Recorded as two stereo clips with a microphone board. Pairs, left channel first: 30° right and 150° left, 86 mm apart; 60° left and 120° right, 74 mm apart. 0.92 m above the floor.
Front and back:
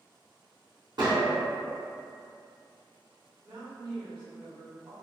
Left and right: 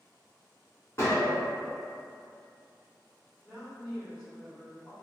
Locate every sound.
1.0 s a gunshot: 115° left, 1.4 m
3.4 s a woman speaking: 165° left, 1.7 m